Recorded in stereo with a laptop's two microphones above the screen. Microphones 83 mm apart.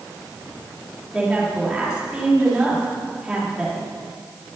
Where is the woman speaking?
10° right (ahead or behind), 2.5 m.